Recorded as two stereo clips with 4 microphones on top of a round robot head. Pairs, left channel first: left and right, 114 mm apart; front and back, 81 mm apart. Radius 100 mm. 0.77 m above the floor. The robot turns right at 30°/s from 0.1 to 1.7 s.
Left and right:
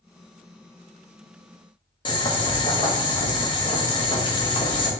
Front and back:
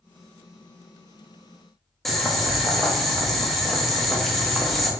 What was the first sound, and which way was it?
Boiling, 90° left.